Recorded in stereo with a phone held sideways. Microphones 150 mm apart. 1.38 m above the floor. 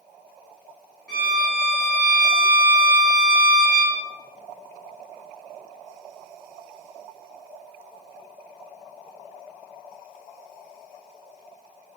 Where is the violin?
Centre (ahead or behind), 1.6 m.